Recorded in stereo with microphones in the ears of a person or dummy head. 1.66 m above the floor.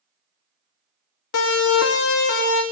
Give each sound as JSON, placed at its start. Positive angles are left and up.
{"t": 1.3, "sound": "a siren", "side_deg": 60, "distance_m": 3.0}